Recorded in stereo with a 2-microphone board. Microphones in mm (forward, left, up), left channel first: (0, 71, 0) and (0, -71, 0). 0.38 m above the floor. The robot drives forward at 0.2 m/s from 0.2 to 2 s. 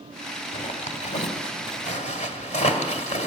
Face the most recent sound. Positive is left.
turn(degrees=55)  # may be behind; listen again after turning